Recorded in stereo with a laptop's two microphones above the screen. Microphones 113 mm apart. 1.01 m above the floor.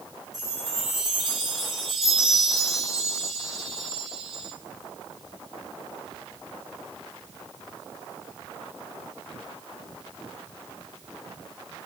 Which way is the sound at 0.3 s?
5° right (ahead or behind).